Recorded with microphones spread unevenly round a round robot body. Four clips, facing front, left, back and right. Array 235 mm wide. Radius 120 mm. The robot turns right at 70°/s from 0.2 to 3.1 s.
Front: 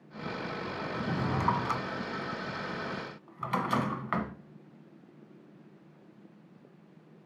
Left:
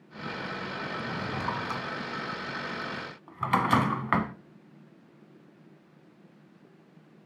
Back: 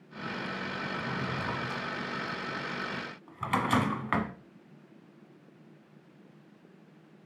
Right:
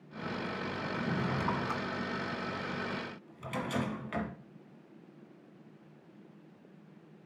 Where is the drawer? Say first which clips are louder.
Right 2 dB, front 5 dB; 35° right, 1.2 m; by 4.3 s 115° left, 1.2 m.